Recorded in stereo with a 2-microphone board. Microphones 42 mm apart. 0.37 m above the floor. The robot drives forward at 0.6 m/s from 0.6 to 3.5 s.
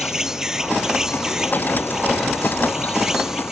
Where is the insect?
15° right (ahead or behind); by 3.5 s 10° right (ahead or behind).